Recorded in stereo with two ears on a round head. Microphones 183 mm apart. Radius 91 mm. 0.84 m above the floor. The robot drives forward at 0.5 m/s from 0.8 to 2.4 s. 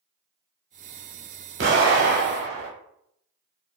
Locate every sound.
1.6 s an explosion: 60° right (ahead or behind), 1.1 m; by 2.7 s 55° right (ahead or behind), 1.2 m